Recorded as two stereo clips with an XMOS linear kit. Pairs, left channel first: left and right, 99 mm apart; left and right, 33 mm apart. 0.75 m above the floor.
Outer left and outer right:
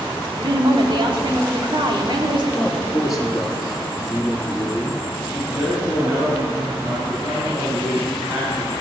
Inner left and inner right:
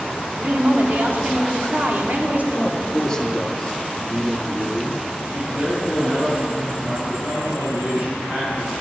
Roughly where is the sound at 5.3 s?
Right.